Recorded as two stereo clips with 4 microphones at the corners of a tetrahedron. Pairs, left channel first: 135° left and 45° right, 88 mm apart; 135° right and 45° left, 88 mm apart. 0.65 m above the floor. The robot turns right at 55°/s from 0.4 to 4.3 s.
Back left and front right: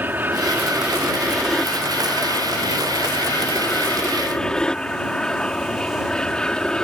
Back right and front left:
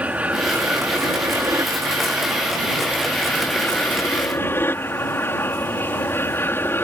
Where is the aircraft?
10° right; by 6.8 s 155° right.